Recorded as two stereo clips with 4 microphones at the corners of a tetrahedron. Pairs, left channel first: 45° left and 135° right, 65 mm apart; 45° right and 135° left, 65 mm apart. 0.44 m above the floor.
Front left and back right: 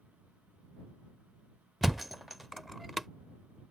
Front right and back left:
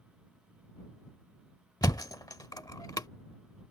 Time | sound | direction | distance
1.8 | a thud | 45° right | ?